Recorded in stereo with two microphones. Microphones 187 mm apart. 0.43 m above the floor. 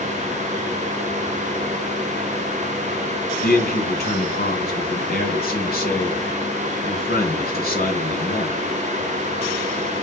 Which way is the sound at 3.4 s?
55° left (ahead or behind).